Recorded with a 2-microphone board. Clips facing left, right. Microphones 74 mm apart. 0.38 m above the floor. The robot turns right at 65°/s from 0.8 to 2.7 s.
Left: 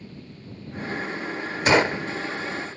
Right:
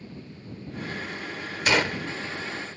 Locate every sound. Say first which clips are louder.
1.7 s a gunshot: left 5 dB; 25° left (ahead or behind)